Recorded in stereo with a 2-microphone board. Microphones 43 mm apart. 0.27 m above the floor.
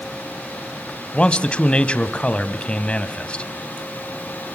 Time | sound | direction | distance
1.1 | a man speaking | 25° left (ahead or behind) | 1.5 m